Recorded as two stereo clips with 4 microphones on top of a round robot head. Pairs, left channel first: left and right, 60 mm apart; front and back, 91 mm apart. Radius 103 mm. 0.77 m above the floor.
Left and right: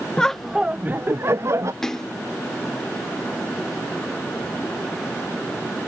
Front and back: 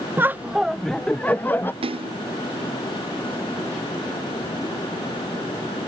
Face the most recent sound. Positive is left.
turn(degrees=170)